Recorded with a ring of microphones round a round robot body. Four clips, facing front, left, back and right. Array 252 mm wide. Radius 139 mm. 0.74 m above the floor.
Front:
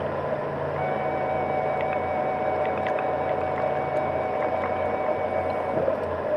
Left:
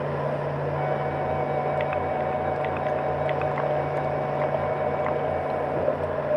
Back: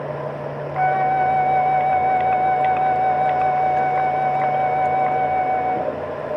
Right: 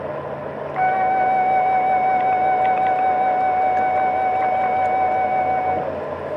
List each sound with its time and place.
0.8 s a flute: 135° right